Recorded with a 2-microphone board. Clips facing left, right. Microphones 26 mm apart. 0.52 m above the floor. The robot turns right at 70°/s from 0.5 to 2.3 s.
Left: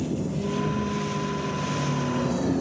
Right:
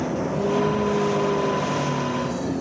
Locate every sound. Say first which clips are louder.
0.0 s a vehicle: right 4 dB; 130° right; by 2.6 s 5° right